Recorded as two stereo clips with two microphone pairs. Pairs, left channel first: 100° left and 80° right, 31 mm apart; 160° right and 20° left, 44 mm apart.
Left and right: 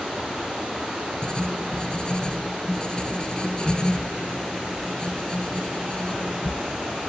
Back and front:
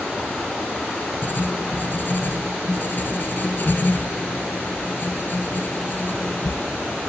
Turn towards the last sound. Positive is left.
turn(degrees=160)